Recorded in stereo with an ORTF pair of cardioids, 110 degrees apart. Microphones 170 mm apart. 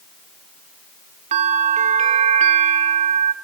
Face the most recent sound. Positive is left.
turn(degrees=-45)